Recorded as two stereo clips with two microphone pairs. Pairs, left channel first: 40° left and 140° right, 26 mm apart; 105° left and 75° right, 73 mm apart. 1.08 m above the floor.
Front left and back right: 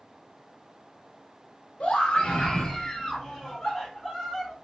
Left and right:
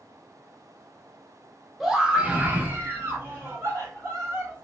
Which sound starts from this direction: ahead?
A scream, at 1.8 s.